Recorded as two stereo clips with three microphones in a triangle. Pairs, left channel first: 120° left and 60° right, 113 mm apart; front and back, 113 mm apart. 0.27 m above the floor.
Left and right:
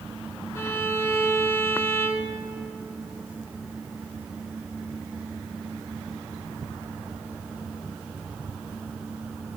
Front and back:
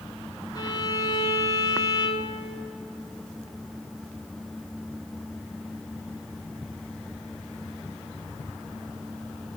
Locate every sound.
0.6 s a violin: 55° left, 0.8 m